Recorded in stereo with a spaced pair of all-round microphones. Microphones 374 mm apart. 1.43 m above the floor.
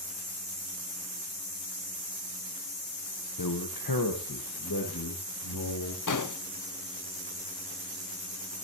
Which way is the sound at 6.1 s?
55° left (ahead or behind).